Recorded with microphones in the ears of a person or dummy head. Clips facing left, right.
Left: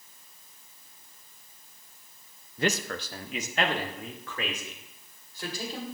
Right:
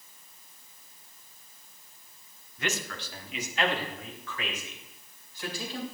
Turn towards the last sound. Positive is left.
turn(degrees=40)  # may be behind; listen again after turning